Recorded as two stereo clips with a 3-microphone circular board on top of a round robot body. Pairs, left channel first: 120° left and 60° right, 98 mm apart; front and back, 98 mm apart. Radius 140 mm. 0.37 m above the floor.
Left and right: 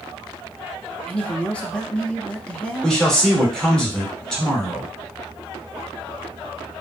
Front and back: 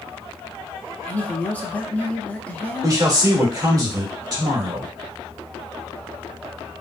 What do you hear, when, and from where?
1.1 s a man speaking: 55° left, 0.8 m
2.8 s a man speaking: 160° right, 1.7 m